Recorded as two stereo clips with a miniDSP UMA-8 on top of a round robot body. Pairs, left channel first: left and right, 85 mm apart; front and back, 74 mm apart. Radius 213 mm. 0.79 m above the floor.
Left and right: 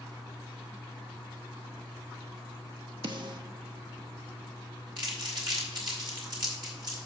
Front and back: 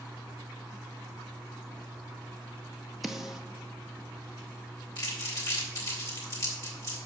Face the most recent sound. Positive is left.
turn(degrees=-55)